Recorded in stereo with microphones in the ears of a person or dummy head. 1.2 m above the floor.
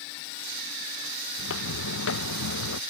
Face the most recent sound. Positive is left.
turn(degrees=70)  # may be behind; listen again after turning